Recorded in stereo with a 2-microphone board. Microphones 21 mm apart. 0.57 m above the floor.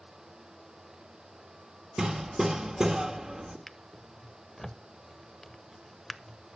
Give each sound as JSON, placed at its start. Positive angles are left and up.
{"t": 2.0, "sound": "hammering", "side_deg": -25, "distance_m": 1.6}
{"t": 3.7, "sound": "a drawer", "side_deg": 5, "distance_m": 0.7}